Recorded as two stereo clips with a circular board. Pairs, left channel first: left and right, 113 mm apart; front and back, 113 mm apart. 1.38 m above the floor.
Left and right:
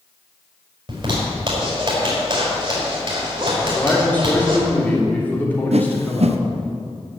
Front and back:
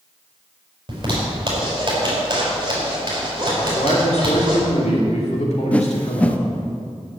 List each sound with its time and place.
0.9 s a zipper: 130° right, 4.5 m
3.6 s a man speaking: 15° left, 3 m
5.7 s a whoosh: 80° right, 0.7 m